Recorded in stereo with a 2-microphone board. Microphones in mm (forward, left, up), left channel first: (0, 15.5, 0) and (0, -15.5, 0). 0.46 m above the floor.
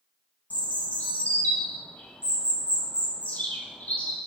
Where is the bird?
60° left (ahead or behind), 2.5 m.